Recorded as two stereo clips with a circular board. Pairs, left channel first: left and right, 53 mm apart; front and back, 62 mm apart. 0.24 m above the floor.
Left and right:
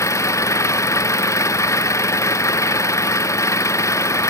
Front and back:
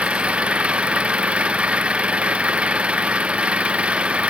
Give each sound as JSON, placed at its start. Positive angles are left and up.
{"t": 0.0, "sound": "an engine running", "azimuth_deg": 110}